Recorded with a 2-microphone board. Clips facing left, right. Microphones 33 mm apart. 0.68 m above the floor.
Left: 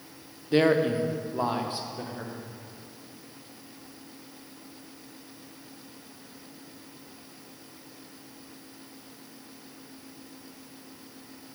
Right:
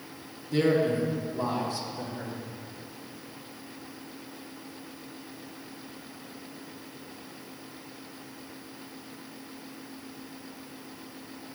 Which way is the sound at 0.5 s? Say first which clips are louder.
Left 2 dB; 45° left (ahead or behind).